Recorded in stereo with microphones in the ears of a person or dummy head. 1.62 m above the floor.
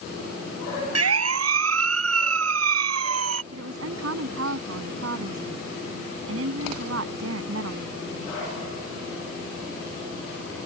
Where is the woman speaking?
75° right (ahead or behind).